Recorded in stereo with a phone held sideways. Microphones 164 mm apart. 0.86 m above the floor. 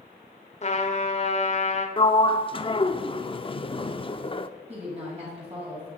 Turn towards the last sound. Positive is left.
turn(degrees=-40)  # may be behind; listen again after turning